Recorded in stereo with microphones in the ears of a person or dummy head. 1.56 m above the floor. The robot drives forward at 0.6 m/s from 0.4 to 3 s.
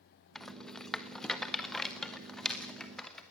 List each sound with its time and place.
0.3 s a rattle: centre (ahead or behind), 1.2 m